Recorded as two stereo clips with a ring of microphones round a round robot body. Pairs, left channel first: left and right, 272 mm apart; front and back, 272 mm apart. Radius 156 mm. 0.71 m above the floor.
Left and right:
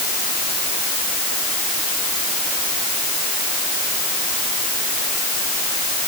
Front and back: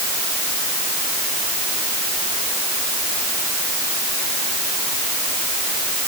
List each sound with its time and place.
Only background noise.